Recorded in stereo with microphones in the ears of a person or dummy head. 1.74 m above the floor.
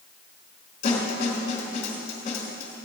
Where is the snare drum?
40° left (ahead or behind), 3.5 m.